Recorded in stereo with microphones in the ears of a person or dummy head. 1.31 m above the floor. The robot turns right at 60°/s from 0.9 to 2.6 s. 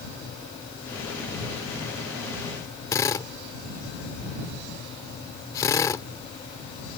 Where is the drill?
15° left (ahead or behind).